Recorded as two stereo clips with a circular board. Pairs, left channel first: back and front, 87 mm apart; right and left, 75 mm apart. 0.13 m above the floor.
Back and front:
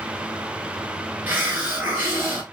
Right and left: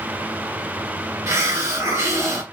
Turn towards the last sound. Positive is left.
turn(degrees=60)